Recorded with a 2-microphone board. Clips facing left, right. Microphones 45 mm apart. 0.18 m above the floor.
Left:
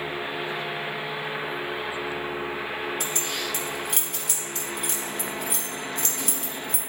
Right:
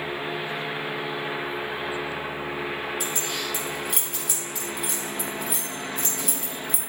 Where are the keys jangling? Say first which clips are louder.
Even; centre (ahead or behind), 3 m.